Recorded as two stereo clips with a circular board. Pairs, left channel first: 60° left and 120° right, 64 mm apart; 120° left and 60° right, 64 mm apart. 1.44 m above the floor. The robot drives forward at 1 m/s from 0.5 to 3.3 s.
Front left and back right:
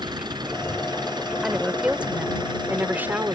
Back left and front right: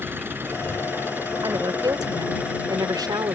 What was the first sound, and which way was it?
An engine running, 115° right.